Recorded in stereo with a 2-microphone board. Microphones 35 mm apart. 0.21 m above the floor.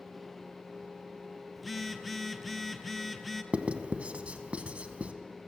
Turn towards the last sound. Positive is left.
turn(degrees=-35)  # may be behind; listen again after turning